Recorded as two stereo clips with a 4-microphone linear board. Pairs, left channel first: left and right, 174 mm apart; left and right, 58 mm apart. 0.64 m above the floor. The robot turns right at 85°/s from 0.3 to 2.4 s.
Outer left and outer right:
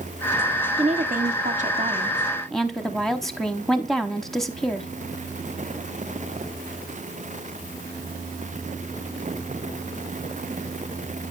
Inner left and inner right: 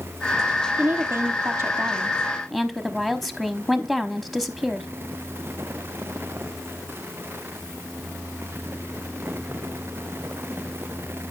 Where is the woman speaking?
135° right, 0.9 m; by 4.9 s straight ahead, 0.9 m.